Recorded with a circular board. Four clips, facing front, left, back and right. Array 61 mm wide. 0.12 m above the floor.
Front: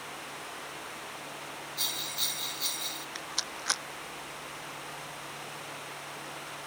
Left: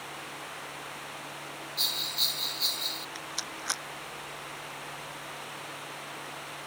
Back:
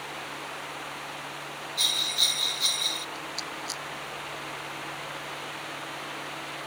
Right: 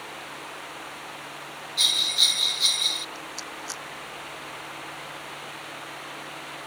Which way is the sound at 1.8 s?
110° right.